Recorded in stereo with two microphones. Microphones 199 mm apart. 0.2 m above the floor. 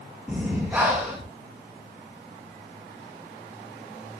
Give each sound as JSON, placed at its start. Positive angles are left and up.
{"t": 0.3, "sound": "breathing", "side_deg": -10, "distance_m": 4.5}